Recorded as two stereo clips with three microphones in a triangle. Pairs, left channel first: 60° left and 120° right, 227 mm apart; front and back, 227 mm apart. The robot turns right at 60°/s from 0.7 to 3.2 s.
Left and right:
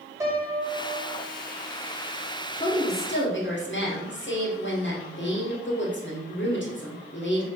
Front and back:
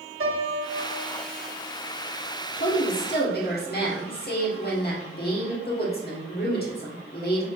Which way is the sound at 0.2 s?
165° left.